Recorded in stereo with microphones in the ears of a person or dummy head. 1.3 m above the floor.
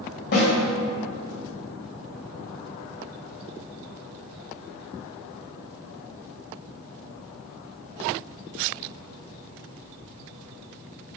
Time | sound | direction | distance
0.3 | a snare drum | 50° left (ahead or behind) | 1.6 m